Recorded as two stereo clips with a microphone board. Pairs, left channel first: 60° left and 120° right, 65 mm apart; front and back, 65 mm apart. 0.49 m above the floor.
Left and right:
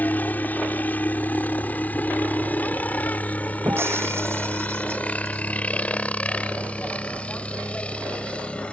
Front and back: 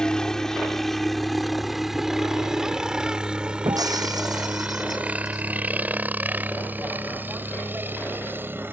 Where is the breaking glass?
170° right.